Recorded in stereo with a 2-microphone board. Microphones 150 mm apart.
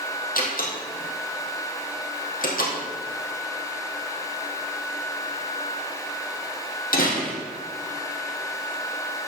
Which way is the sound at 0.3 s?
70° left (ahead or behind).